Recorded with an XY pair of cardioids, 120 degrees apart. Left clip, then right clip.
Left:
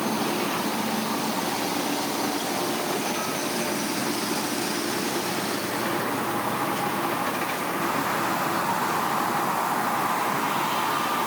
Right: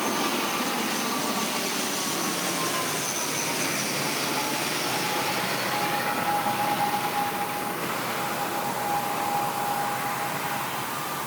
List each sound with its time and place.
Only background noise.